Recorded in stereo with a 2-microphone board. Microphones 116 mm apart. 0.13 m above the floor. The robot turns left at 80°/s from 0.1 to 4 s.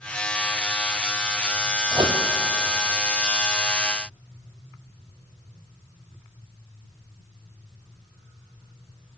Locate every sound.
1.9 s a microwave: 30° right (ahead or behind), 2.5 m; by 2.2 s 55° right (ahead or behind), 2.5 m